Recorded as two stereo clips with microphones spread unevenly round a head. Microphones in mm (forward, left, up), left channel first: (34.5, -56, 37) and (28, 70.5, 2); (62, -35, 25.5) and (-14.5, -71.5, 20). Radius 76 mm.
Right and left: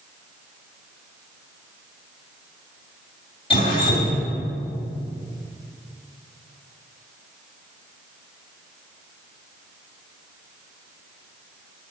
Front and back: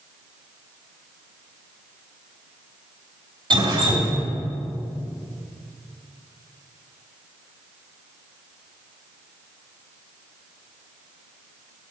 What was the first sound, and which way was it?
Dripping, 130° right.